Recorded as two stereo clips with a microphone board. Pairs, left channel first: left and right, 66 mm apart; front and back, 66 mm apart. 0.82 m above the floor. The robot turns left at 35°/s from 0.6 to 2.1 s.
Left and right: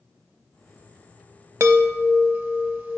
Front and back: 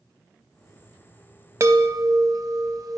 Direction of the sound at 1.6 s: 130° right.